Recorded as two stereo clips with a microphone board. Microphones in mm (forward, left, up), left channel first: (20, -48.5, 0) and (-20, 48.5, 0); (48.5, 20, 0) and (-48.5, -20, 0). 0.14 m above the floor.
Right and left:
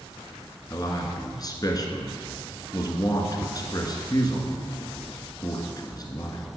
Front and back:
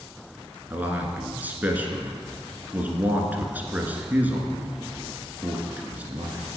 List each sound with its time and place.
0.7 s a man speaking: 90° right, 1.4 m